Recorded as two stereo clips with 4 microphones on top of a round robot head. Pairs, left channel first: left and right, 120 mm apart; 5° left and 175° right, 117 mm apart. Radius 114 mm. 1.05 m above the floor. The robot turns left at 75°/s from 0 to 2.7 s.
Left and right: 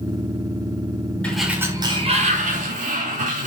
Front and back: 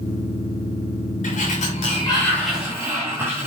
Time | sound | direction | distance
1.2 | a sliding door | 10° left | 6 m